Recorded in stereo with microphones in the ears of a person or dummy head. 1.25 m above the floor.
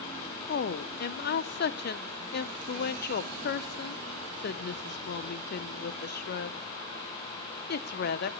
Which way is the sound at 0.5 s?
55° left (ahead or behind).